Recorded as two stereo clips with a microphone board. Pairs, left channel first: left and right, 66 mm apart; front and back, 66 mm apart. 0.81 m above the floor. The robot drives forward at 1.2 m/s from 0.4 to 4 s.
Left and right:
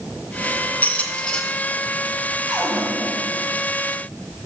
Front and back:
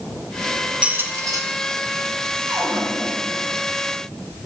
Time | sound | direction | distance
0.8 | a squeak | 120° left | 0.5 m
2.5 | a cupboard door | 165° right | 1.7 m